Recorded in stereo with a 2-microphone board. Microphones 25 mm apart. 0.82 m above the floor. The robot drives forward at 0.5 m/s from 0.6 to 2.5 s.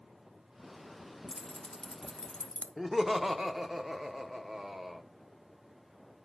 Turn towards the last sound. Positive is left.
turn(degrees=-20)  # may be behind; listen again after turning